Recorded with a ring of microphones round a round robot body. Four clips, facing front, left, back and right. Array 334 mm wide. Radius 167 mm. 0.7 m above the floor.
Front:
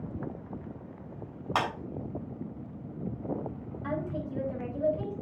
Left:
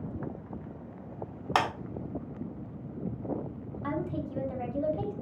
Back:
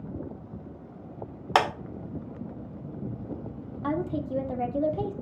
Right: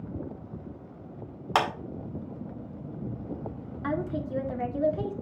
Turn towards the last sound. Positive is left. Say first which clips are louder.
# right 3 dB, back 5 dB
turn(degrees=-155)